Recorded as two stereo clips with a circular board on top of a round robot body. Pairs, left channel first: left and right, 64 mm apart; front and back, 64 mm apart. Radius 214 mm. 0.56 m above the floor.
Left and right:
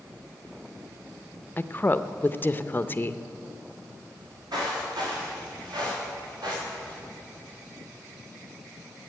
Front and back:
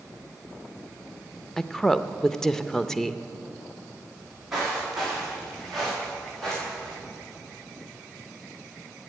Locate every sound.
1.6 s a woman speaking: 75° left, 0.8 m
4.2 s footsteps: 100° right, 6.5 m; by 7.0 s 80° right, 7 m